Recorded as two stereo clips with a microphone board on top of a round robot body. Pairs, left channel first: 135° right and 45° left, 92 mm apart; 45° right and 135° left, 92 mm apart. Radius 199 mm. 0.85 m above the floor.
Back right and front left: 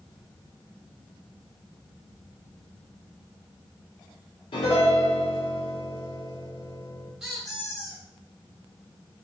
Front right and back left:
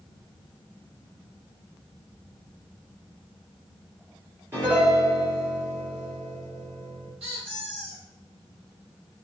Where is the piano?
160° right, 2.5 m.